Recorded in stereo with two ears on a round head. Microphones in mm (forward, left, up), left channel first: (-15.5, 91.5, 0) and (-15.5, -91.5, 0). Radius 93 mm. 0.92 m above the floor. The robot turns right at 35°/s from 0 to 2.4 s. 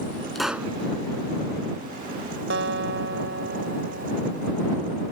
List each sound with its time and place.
0.3 s a pop: centre (ahead or behind); by 0.7 s 15° right (ahead or behind)
2.5 s a guitar: 60° right (ahead or behind)